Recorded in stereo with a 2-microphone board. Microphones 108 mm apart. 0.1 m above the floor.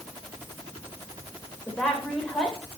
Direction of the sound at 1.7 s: Centre (ahead or behind).